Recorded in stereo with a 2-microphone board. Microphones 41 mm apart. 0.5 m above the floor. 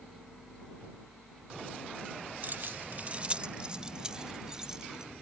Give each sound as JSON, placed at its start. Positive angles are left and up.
{"t": 2.4, "sound": "keys jangling", "side_deg": -45}